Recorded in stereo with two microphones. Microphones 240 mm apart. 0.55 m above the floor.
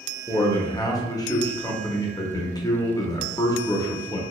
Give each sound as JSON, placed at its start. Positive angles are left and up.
{"t": 0.3, "sound": "a man speaking", "side_deg": 15, "distance_m": 0.6}